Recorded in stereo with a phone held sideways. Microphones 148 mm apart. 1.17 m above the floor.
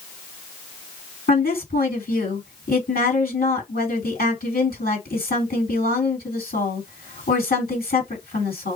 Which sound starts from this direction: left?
A woman speaking, at 1.3 s.